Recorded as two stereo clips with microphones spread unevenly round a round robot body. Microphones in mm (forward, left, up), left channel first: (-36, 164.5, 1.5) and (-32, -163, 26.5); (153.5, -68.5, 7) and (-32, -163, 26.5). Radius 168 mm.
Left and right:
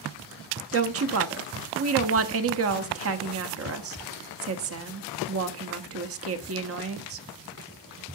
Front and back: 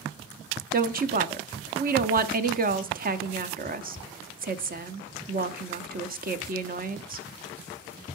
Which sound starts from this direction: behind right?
A woman speaking, at 0.7 s.